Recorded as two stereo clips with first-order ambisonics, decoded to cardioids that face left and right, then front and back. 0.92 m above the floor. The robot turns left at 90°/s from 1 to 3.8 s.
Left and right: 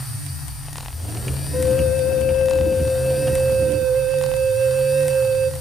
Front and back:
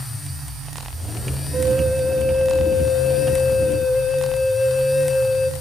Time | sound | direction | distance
1.5 | a flute | 145° left | 0.6 m